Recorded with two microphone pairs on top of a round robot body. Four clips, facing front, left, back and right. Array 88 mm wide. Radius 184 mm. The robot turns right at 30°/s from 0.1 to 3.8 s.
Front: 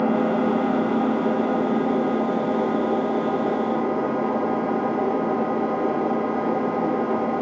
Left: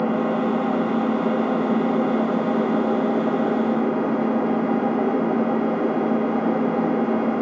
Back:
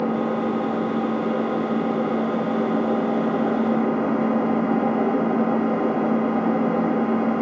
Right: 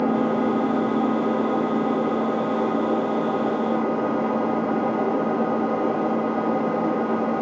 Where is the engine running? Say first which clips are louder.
Even, front 2 dB; 25° left, 1.5 m; by 7.4 s 140° left, 1.5 m.